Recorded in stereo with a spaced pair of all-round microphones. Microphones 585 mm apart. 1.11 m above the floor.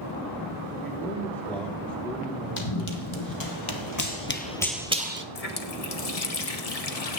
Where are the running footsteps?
60° left (ahead or behind), 2.5 m; by 5.2 s 20° right (ahead or behind), 1.3 m.